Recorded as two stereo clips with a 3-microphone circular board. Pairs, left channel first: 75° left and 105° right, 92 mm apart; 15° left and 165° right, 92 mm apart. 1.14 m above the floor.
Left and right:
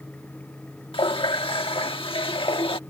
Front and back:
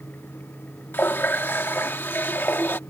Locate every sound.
0.9 s a running tap: 80° left